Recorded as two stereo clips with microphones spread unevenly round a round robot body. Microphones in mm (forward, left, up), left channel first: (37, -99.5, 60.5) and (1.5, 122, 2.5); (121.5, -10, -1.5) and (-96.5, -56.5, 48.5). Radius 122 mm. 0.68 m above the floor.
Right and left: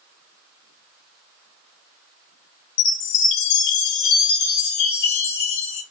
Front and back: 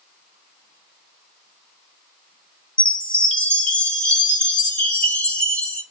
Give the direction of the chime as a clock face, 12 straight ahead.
2 o'clock.